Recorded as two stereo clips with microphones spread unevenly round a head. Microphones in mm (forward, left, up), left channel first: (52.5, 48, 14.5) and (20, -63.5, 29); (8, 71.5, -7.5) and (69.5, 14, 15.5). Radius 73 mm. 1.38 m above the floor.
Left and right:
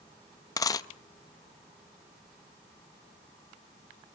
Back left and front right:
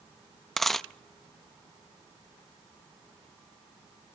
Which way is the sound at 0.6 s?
30° left.